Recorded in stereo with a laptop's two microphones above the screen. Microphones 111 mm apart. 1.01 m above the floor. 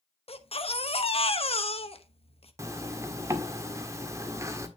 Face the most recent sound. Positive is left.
turn(degrees=-30)  # may be behind; listen again after turning